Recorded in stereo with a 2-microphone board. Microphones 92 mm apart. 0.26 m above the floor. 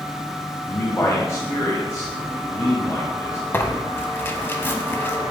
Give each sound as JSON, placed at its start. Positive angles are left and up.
{"t": 0.7, "sound": "a man speaking", "side_deg": 35, "distance_m": 1.6}
{"t": 3.5, "sound": "tearing paper", "side_deg": 25, "distance_m": 0.7}